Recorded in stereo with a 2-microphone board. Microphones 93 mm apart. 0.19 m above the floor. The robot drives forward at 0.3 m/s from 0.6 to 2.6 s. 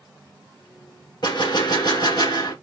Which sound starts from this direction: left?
A gunshot, at 1.2 s.